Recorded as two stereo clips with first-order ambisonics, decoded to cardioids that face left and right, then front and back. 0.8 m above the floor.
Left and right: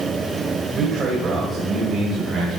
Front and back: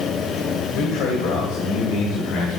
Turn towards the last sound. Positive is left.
turn(degrees=-20)